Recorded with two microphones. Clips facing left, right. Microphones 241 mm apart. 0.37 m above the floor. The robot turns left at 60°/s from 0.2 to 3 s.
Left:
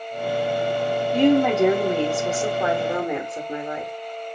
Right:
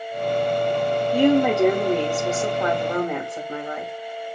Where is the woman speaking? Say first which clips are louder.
Even; 10° right (ahead or behind), 1.1 m; by 3.9 s 20° left (ahead or behind), 1.1 m.